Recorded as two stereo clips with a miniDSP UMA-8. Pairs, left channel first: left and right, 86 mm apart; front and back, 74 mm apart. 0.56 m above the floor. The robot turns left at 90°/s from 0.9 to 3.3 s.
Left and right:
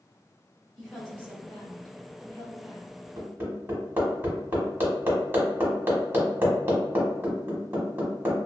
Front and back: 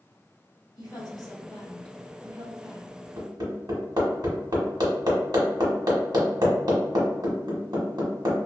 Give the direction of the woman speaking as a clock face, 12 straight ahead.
12 o'clock.